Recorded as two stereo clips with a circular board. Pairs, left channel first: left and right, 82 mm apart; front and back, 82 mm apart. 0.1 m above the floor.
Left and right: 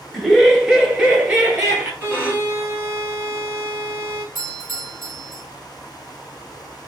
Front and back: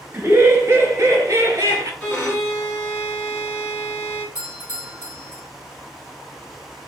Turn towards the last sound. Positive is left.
turn(degrees=-135)